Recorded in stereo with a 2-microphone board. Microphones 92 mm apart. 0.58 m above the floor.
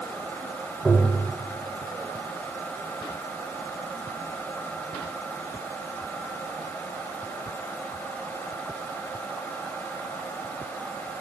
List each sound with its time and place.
0.8 s tapping: 15° right (ahead or behind), 2 m